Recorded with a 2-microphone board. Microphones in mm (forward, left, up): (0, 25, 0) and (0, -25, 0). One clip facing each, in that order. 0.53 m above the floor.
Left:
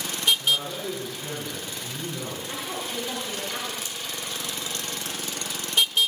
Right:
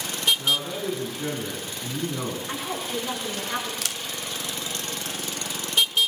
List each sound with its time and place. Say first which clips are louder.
0.4 s a man speaking: even; 80° right, 5.5 m
2.5 s a woman speaking: right 2 dB; 65° right (ahead or behind), 8.5 m
3.8 s a camera shutter: right 3 dB; 65° right (ahead or behind), 0.6 m